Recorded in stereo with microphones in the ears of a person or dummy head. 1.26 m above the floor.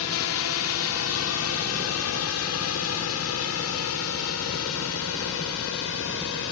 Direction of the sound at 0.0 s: 70° left (ahead or behind).